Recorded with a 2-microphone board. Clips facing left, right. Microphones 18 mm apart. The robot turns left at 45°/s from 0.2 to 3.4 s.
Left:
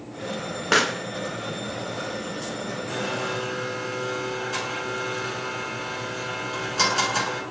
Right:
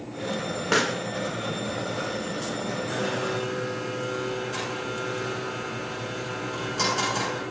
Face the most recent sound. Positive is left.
turn(degrees=25)  # may be behind; listen again after turning